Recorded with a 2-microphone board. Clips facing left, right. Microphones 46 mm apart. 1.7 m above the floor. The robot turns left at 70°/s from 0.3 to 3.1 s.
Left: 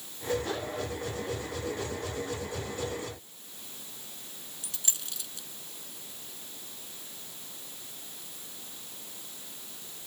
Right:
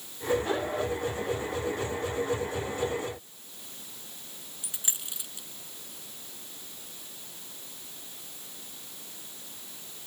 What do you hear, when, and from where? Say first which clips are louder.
4.6 s a dropped coin: even; 20° right (ahead or behind)